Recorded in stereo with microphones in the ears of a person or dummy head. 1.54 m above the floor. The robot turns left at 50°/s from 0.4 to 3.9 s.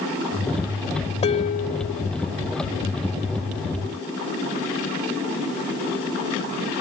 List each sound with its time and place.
1.2 s dishes clattering: 150° left; by 2.1 s 105° left